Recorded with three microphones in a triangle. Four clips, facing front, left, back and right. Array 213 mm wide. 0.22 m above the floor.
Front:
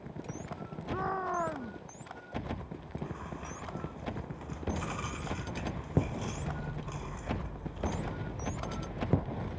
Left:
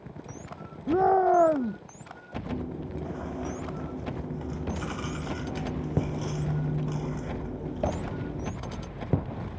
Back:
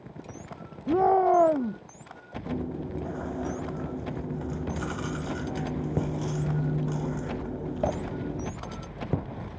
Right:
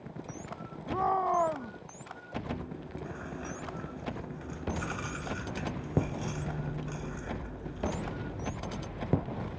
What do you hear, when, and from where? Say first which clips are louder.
0.9 s a shout: left 7 dB, back 13 dB; 135° left
2.5 s chewing: left 5 dB, back 9 dB; 155° left